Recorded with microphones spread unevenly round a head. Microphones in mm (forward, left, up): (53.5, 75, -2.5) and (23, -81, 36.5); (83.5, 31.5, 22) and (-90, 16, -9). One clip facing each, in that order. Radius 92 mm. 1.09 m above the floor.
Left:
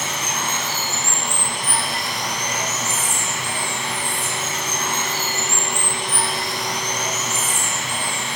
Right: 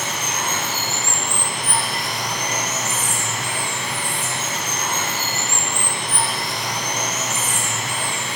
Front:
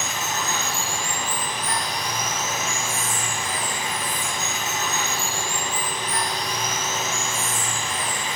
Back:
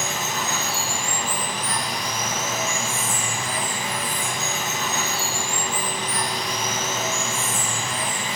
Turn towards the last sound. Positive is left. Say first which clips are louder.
# even, back 1 dB
turn(degrees=-160)